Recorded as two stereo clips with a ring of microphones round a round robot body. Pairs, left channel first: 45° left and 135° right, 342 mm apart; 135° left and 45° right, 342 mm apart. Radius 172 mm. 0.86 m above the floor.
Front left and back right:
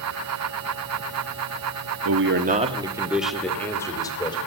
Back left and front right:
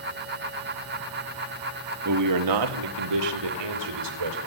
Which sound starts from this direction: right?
A man speaking, at 2.0 s.